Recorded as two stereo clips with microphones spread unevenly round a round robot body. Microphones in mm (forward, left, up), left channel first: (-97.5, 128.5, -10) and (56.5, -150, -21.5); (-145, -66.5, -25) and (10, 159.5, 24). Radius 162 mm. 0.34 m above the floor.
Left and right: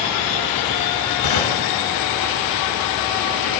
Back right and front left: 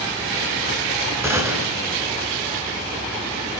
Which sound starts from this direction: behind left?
A gunshot, at 1.2 s.